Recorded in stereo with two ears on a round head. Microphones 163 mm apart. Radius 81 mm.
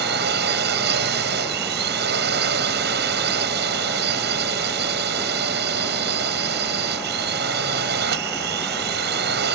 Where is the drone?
60° right (ahead or behind).